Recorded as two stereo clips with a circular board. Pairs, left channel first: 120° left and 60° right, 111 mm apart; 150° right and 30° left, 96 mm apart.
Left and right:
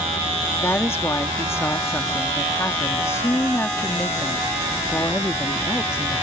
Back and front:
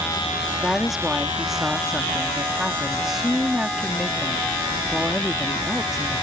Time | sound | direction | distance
0.6 | a woman speaking | 110° left | ?